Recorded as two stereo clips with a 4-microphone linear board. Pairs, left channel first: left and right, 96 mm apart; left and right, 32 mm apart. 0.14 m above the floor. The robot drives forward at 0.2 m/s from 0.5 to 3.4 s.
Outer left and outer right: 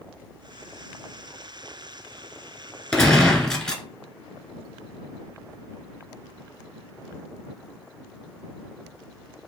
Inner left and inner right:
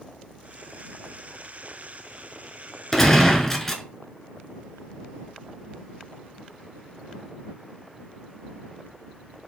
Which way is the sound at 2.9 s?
5° left (ahead or behind).